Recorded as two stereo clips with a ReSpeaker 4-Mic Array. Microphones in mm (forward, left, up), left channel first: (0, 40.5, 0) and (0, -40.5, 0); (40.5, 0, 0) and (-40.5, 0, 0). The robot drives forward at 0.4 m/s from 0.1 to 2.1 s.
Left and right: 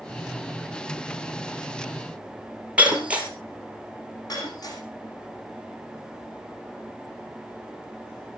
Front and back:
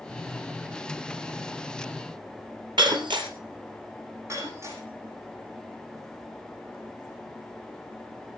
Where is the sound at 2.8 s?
165° right, 3.5 m.